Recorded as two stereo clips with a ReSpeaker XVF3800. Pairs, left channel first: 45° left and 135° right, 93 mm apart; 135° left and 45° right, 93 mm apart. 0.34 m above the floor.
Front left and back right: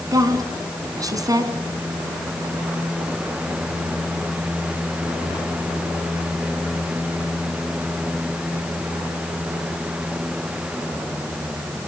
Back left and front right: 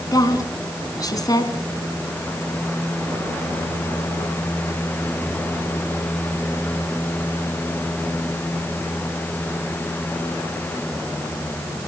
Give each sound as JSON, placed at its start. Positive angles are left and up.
{"t": 0.1, "sound": "a woman speaking", "azimuth_deg": 180, "distance_m": 3.0}